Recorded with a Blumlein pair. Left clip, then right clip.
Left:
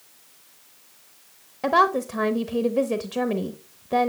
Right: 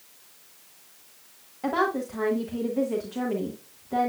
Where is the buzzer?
I don't hear a buzzer.